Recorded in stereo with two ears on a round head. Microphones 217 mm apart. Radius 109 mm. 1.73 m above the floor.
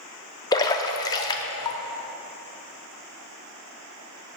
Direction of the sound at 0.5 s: 15° left (ahead or behind).